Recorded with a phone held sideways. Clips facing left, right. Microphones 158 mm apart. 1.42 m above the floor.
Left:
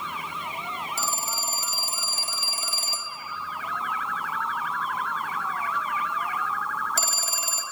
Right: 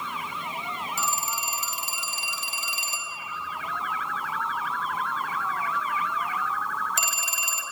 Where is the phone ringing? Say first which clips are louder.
Right 1 dB; 35° left (ahead or behind), 2 m.